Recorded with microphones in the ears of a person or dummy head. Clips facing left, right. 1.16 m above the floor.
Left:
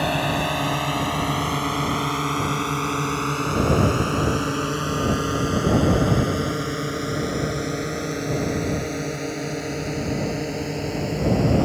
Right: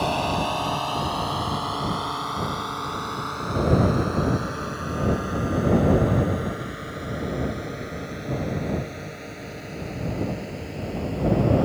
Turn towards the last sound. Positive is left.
turn(degrees=60)  # may be behind; listen again after turning